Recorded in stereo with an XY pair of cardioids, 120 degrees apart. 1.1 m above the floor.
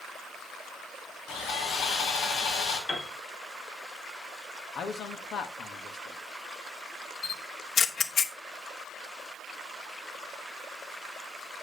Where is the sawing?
65° left, 4 m.